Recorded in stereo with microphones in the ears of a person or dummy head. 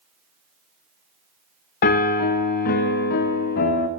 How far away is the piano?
About 0.5 m.